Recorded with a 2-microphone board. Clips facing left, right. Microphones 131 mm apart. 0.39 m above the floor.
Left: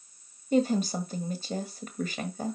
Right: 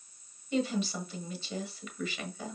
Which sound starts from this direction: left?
A woman speaking, at 0.5 s.